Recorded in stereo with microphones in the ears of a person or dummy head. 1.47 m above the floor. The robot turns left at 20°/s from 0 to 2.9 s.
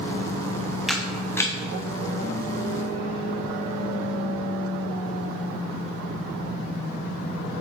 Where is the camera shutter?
Centre (ahead or behind), 0.5 m; by 1.5 s 10° left (ahead or behind), 0.5 m.